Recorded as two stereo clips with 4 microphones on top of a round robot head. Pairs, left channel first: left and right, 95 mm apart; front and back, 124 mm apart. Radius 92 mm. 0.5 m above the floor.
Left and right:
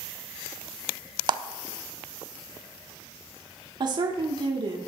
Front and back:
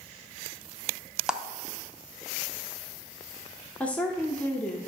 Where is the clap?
100° right, 0.6 m.